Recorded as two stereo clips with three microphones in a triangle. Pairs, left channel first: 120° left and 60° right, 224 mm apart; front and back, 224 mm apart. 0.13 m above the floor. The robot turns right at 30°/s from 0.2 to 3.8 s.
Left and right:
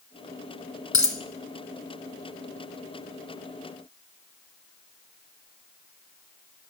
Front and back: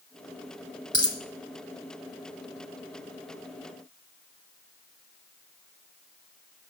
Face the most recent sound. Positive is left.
turn(degrees=-130)